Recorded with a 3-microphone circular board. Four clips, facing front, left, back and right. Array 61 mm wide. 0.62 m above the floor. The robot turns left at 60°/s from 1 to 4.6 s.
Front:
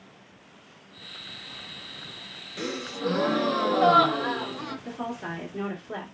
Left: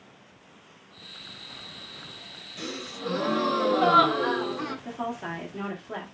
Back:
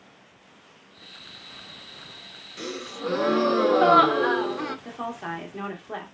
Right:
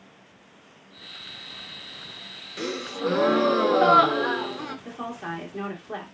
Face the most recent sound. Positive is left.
turn(degrees=-165)